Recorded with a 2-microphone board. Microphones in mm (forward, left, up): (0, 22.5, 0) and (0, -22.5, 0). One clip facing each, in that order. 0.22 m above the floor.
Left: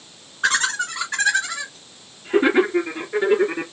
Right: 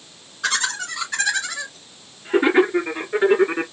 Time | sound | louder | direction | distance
0.4 | laughter | left 3 dB | 30° left (ahead or behind) | 3 m